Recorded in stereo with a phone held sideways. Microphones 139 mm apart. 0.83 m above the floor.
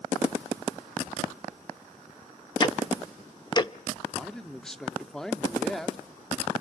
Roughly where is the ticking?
Left.